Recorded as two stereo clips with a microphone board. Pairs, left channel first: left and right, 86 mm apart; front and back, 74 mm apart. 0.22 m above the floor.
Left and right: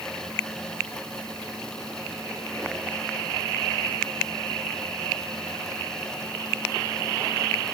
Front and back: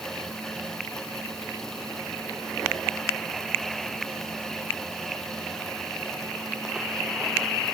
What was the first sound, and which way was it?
Only background noise.